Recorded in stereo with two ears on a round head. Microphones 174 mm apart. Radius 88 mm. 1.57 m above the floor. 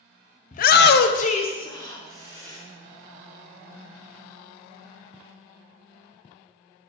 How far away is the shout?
About 0.6 m.